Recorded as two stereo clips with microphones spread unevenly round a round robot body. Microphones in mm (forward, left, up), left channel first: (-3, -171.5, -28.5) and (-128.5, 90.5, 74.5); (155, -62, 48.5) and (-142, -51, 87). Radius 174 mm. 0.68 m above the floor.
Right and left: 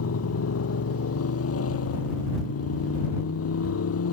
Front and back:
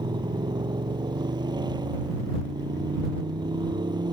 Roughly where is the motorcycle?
Right.